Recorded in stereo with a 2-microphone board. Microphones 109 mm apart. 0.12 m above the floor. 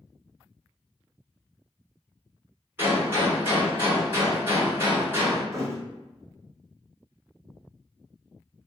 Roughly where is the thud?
Right.